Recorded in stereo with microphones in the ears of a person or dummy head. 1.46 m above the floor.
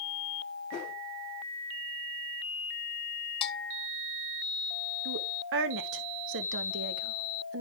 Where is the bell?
30° left (ahead or behind), 0.7 m.